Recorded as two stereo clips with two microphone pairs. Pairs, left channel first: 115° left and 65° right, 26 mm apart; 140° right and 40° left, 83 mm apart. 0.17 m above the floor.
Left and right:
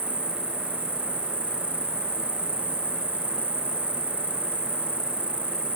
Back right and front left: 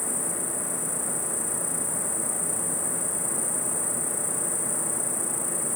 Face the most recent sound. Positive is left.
turn(degrees=-50)